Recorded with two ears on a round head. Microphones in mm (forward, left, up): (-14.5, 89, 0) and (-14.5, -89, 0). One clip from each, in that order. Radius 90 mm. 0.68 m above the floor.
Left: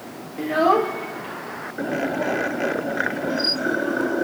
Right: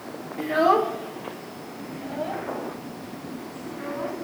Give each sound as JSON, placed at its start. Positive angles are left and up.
{"t": 0.4, "sound": "a child speaking", "side_deg": -10, "distance_m": 1.2}